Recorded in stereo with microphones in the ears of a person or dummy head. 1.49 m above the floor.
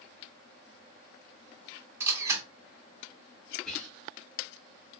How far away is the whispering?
About 1.5 m.